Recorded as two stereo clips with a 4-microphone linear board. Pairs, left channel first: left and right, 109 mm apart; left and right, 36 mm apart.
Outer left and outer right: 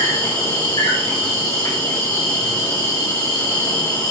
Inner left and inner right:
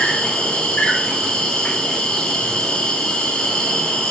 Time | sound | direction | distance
0.0 | an insect | 35° left (ahead or behind) | 1.3 m